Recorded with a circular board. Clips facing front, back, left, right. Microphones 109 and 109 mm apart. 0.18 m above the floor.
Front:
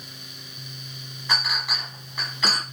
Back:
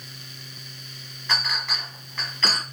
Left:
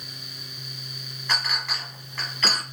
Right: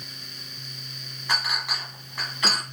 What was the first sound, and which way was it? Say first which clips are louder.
A clink: front 1 dB, right 1 dB; 55° right.